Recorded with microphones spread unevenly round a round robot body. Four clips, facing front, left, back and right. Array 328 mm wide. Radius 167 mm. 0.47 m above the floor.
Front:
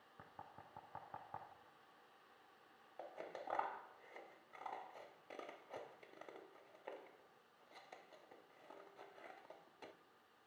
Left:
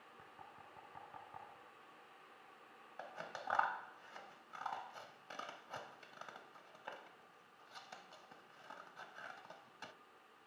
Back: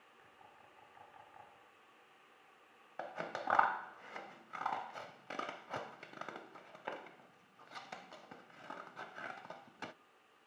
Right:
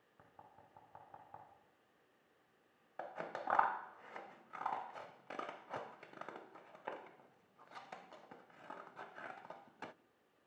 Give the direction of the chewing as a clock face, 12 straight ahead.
I don't hear chewing.